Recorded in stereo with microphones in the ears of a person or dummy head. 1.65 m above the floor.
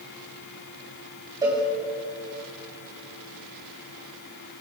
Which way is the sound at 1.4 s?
20° right (ahead or behind).